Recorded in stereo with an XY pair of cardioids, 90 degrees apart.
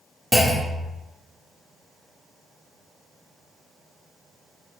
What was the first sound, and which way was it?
A clunk, 10° left.